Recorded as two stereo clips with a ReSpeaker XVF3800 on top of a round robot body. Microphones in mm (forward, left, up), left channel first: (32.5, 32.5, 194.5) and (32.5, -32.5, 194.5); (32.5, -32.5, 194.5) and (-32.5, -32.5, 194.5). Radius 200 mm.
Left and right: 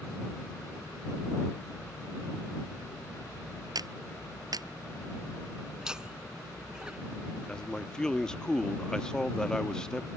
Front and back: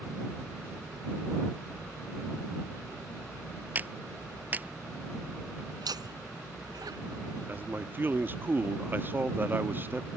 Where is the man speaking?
160° left.